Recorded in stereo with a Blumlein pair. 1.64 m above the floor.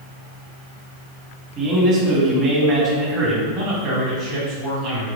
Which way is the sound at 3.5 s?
40° right.